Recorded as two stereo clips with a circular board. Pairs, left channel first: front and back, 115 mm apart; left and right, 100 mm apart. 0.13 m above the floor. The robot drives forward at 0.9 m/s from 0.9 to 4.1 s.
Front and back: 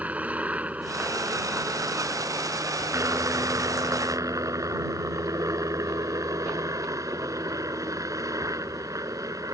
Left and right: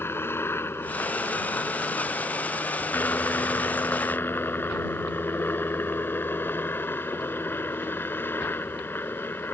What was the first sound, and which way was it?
A helicopter, 120° left.